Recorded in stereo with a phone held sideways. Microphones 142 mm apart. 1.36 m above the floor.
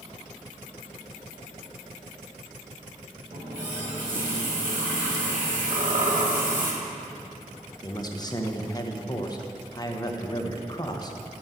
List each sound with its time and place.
3.3 s a running tap: 70° right (ahead or behind), 1.8 m
5.7 s a squeak: 65° right (ahead or behind), 1.2 m
7.8 s a man speaking: 30° left (ahead or behind), 0.8 m